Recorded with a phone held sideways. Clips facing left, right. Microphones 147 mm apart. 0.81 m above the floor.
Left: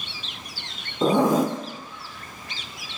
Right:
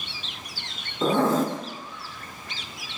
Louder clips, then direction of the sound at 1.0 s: Left 2 dB; 15° left (ahead or behind).